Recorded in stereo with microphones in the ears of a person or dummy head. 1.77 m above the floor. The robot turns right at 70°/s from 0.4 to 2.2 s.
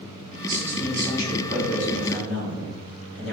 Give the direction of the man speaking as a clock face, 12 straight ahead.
1 o'clock.